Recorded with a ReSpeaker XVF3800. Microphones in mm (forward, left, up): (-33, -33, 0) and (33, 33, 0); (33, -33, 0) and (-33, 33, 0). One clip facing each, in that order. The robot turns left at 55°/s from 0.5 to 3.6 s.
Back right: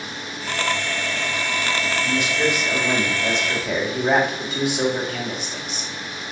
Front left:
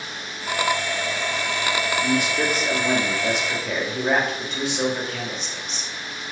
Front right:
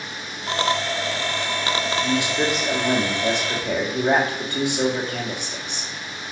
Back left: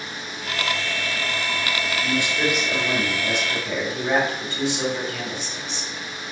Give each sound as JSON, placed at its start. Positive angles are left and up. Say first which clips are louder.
{"t": 2.0, "sound": "a man speaking", "louder": "back right 1 dB, even", "azimuth_deg": 35, "distance_m": 2.5}